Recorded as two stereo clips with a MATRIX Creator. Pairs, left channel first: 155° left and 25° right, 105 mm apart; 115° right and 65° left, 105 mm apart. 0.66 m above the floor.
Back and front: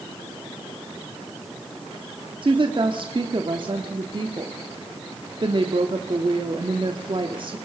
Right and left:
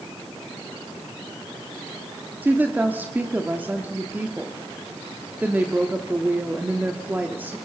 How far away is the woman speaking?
About 1.4 m.